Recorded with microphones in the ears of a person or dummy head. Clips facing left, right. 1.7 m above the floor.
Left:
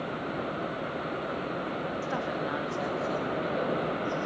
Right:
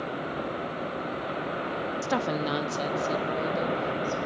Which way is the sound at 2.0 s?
60° right (ahead or behind).